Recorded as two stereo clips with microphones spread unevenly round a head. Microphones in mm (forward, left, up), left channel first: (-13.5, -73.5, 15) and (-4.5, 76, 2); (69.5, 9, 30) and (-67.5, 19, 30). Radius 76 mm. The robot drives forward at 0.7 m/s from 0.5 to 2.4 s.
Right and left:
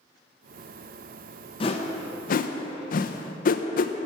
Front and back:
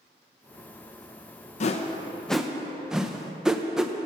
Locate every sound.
1.6 s a whoosh: 35° right, 0.7 m; by 3.9 s 100° right, 0.5 m